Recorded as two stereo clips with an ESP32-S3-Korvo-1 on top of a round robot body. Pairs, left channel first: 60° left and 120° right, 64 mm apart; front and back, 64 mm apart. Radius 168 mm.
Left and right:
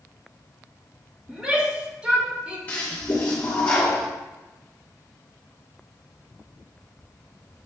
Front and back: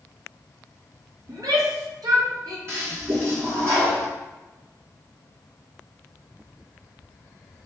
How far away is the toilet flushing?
About 1.1 m.